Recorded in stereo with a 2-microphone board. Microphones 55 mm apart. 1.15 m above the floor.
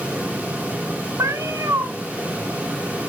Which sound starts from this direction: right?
A cat meowing, at 1.2 s.